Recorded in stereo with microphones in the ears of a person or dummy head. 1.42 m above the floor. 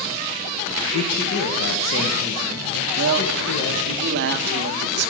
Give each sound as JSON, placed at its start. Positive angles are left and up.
{"t": 0.9, "sound": "a man speaking", "side_deg": 65, "distance_m": 0.8}
{"t": 3.0, "sound": "a man speaking", "side_deg": -65, "distance_m": 0.6}